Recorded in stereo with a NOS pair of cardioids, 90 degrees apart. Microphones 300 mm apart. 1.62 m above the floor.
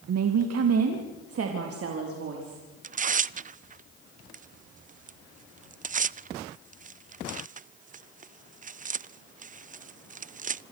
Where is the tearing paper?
25° right, 0.5 m.